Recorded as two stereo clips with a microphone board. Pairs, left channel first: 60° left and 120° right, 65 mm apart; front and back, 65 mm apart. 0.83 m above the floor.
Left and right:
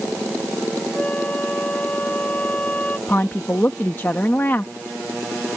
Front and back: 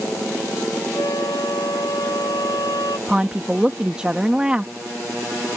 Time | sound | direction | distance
0.9 | a flute | 5° right | ?
3.1 | a woman speaking | 110° left | ?